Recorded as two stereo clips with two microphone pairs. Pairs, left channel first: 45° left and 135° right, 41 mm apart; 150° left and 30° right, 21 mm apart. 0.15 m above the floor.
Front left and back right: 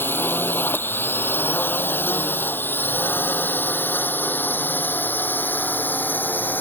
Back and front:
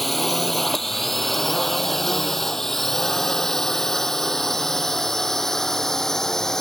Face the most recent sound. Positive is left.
turn(degrees=85)